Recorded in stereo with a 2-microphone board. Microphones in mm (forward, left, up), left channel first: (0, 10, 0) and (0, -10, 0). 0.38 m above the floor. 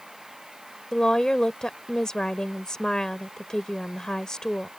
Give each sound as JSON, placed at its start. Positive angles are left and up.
{"t": 0.9, "sound": "a woman speaking", "side_deg": 35}